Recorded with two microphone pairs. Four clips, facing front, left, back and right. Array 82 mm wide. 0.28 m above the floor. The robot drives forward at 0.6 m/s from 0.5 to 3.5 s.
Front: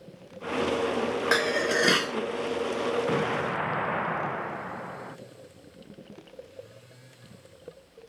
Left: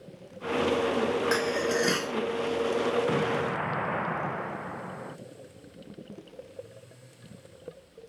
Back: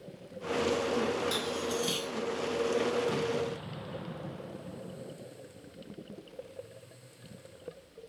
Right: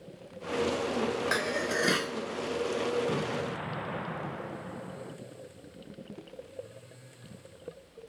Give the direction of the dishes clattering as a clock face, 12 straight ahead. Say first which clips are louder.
Left 3 dB, front 9 dB; 12 o'clock.